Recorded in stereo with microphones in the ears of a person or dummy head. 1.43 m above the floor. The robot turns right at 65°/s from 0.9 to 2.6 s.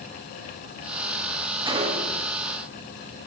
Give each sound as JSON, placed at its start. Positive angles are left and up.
{"t": 1.6, "sound": "a gunshot", "azimuth_deg": -155, "distance_m": 3.5}